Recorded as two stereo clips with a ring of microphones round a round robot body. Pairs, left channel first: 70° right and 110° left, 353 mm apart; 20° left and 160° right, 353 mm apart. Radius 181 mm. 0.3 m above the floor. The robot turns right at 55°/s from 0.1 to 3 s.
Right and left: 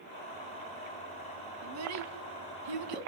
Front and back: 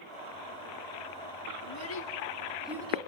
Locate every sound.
1.6 s a child speaking: 55° left, 2.5 m; by 3.1 s 130° left, 2.5 m